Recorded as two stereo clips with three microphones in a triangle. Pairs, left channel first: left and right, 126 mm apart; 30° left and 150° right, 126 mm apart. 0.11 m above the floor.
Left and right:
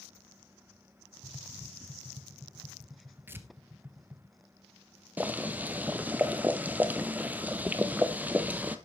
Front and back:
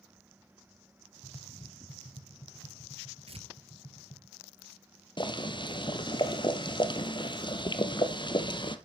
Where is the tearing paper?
160° right, 1.5 m.